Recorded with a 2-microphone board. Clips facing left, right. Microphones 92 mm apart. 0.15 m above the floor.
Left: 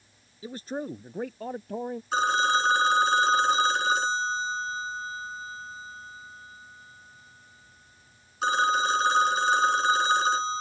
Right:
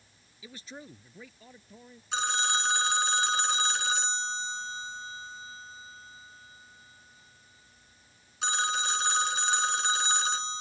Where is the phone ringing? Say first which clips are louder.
Left 7 dB; 45° left (ahead or behind).